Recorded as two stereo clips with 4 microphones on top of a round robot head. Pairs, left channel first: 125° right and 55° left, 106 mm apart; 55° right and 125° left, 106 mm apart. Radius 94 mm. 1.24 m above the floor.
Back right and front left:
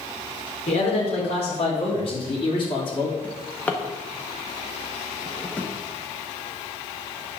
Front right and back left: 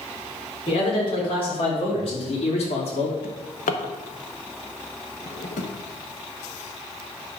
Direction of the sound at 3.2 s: 50° right.